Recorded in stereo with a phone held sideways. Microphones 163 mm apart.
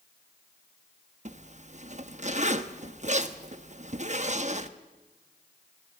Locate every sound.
1.2 s a zipper: 45° right (ahead or behind), 0.9 m